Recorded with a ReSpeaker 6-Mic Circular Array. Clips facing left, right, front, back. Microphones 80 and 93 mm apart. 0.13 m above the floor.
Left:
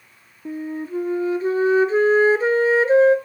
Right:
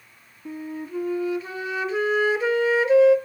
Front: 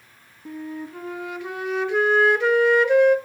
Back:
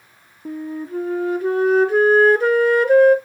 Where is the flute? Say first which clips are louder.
Left 5 dB, back 5 dB; 135° left, 0.9 m.